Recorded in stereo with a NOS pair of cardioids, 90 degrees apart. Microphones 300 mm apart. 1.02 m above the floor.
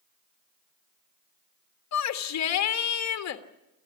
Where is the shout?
60° left, 1.9 m.